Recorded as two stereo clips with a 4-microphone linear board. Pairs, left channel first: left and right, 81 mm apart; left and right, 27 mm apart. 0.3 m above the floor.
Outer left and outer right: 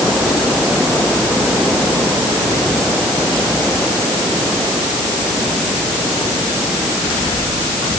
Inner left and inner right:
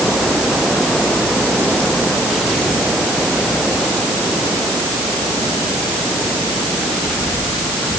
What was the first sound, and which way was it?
Only background noise.